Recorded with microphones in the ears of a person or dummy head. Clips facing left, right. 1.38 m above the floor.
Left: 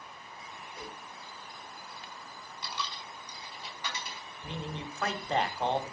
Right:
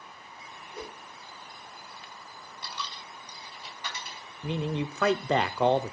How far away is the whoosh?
About 2 m.